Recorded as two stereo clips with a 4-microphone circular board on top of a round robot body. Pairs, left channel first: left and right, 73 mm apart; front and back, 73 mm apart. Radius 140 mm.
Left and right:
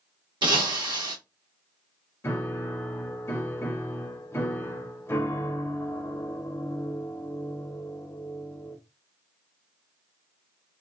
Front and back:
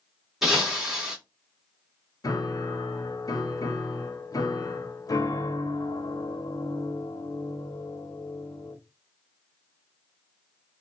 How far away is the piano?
About 0.8 m.